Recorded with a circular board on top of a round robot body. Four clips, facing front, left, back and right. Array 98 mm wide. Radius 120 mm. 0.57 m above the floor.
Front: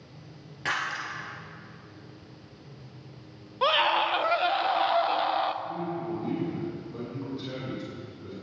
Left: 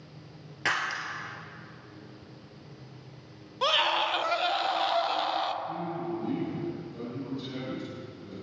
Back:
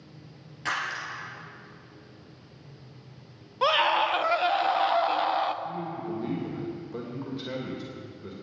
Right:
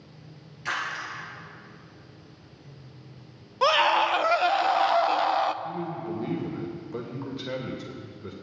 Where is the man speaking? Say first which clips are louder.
Right 1 dB, front 1 dB; 110° right, 2.5 m.